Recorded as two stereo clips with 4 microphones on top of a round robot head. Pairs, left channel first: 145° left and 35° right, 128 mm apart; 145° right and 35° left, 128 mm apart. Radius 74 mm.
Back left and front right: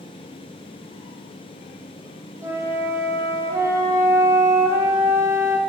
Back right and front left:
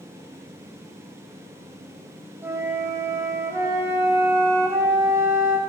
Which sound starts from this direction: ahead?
A flute, at 2.4 s.